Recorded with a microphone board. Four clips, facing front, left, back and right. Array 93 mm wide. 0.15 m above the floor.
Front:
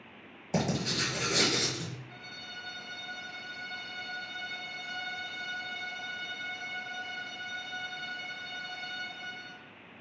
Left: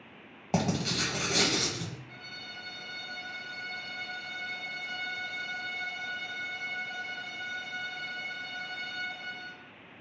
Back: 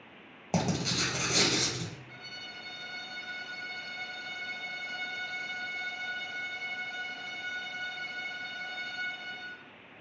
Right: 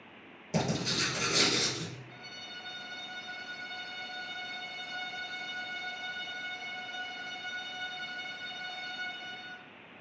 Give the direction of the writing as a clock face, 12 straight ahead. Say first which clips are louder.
Left 2 dB, even; 8 o'clock.